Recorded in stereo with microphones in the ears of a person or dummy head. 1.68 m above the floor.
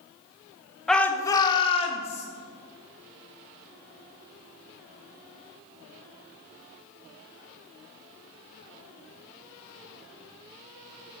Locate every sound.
0.9 s a shout: 5° left (ahead or behind), 0.8 m; by 2.3 s 40° left (ahead or behind), 1.3 m